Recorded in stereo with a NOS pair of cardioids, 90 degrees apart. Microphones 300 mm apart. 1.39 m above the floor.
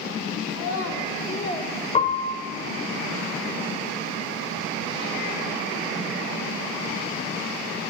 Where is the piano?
25° left, 1.0 m.